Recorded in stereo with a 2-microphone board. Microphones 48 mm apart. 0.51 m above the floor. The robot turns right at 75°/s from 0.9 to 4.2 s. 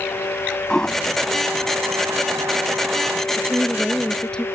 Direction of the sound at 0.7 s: 10° left (ahead or behind).